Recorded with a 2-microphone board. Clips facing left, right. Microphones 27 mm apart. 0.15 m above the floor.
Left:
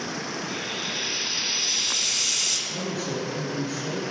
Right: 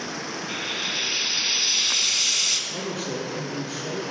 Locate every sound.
0.5 s frying: 25° right (ahead or behind), 0.6 m
2.7 s a man speaking: 5° right (ahead or behind), 2 m